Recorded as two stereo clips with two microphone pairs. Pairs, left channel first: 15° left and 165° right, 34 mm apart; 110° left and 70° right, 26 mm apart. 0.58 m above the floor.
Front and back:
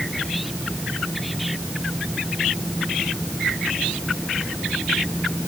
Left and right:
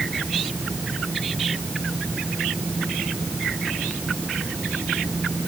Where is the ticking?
No ticking in this recording.